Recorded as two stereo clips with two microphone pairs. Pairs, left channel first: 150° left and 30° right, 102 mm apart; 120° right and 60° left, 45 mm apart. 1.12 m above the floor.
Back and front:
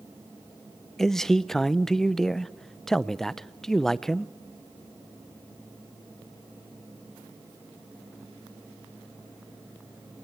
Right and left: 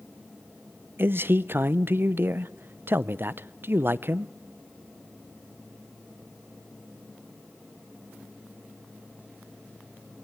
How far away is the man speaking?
About 0.6 m.